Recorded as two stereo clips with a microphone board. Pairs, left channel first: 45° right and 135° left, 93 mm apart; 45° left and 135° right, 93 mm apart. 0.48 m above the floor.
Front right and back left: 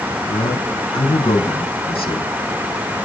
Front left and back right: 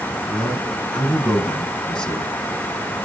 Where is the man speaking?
40° right, 5 m.